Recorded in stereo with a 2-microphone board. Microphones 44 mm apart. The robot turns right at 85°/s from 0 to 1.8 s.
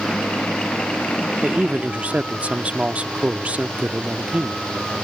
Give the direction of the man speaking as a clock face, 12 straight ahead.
4 o'clock.